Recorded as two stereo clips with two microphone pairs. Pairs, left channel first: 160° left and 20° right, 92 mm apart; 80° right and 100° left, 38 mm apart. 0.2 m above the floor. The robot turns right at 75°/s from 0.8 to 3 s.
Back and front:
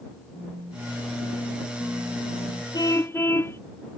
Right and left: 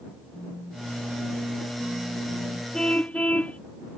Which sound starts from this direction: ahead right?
A phone buzzing, at 0.3 s.